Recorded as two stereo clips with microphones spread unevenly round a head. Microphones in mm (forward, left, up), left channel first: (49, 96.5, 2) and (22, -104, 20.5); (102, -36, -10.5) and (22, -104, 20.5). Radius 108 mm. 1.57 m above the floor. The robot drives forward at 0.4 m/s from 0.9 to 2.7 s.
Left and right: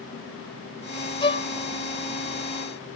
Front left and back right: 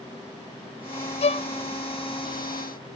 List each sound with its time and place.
1.2 s a violin: 15° left, 0.6 m; by 1.5 s 20° left, 0.6 m